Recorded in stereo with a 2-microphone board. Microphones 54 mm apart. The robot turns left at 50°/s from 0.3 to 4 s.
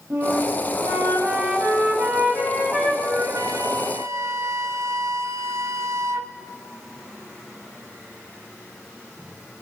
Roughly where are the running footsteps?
No running footsteps in this recording.